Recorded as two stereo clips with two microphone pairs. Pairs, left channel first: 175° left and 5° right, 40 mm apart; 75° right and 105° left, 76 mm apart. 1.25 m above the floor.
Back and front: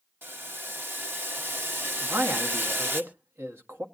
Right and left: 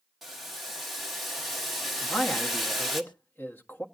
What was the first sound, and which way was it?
Boiling, 20° left.